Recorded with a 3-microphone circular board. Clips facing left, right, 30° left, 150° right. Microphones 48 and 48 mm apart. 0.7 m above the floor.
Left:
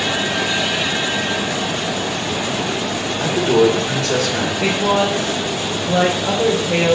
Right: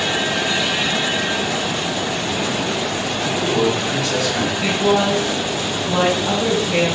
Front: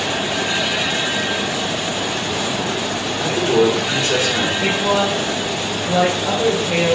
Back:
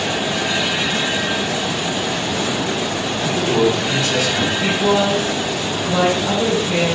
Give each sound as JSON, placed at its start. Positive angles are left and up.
{"t": 3.2, "sound": "a man speaking", "azimuth_deg": 80, "distance_m": 2.5}
{"t": 4.6, "sound": "a woman speaking", "azimuth_deg": 95, "distance_m": 2.5}